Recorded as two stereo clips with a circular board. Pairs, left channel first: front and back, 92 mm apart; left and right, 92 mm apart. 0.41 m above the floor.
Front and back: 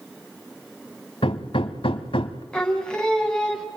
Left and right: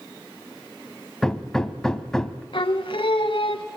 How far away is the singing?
About 3 m.